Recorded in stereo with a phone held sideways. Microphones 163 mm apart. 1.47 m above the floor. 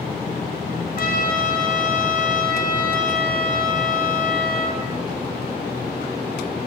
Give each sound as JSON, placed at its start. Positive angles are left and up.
{"t": 1.0, "sound": "a trumpet", "side_deg": 60, "distance_m": 0.5}